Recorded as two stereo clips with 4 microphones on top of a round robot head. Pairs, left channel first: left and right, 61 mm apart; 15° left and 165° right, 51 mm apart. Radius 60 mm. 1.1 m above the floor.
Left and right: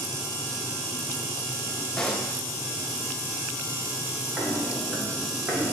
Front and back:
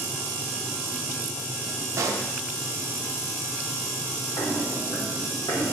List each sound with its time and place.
2.0 s a pop: 175° left, 1.0 m
4.4 s footsteps: 20° right, 3 m; by 5.7 s 25° right, 2.5 m